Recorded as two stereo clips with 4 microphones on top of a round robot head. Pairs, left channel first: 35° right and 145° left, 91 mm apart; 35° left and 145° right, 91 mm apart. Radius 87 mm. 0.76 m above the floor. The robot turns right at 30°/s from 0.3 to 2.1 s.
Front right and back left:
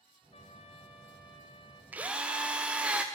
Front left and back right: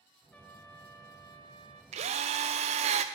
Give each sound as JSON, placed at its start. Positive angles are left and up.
{"t": 0.3, "sound": "a trumpet", "azimuth_deg": -40, "distance_m": 1.3}
{"t": 1.9, "sound": "a drill", "azimuth_deg": -140, "distance_m": 0.6}